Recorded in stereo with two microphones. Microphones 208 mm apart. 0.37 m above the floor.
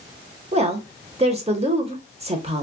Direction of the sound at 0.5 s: 30° right (ahead or behind).